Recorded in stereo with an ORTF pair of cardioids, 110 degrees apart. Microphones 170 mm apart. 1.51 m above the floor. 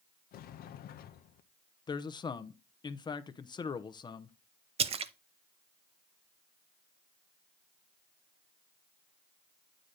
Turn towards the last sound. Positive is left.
turn(degrees=-35)